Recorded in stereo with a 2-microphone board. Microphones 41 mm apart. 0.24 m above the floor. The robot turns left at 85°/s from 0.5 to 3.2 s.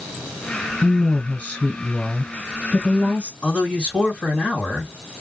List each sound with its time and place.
0.8 s a woman speaking: 115° left, 1.3 m; by 3.3 s 90° right, 1.3 m
3.4 s a man speaking: 40° left (ahead or behind), 2 m